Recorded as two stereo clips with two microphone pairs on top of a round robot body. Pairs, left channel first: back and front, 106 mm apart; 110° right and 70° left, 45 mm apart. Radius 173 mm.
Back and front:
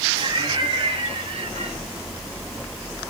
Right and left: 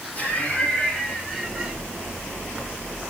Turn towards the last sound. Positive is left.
turn(degrees=-20)